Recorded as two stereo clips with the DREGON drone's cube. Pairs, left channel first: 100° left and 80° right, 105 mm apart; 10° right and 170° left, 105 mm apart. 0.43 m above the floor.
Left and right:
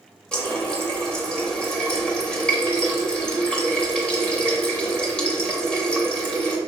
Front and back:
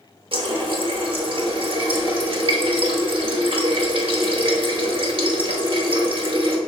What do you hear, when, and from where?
0.3 s a running tap: straight behind, 0.8 m